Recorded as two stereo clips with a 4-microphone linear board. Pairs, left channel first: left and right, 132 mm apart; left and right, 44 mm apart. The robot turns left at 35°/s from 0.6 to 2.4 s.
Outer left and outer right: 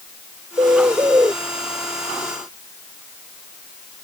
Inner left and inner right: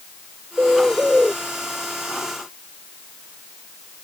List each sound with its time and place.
0.6 s a bird: 35° right (ahead or behind); by 1.3 s 20° right (ahead or behind)